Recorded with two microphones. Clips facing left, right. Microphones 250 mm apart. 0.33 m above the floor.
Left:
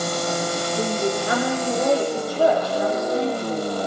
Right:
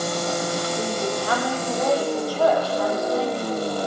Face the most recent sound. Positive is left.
turn(degrees=20)  # may be behind; listen again after turning